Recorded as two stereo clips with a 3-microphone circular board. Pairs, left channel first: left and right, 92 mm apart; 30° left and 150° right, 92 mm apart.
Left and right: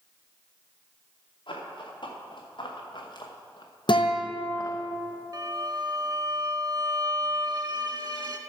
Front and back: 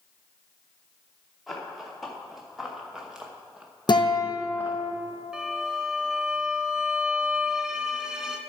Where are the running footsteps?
120° left, 3 m; by 4.8 s 145° left, 1.4 m.